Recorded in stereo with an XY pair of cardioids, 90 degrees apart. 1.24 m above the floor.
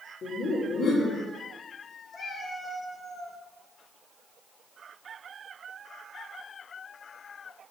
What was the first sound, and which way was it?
Laughter, 70° left.